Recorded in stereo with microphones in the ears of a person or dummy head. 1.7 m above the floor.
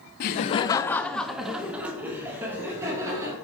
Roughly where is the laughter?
Left.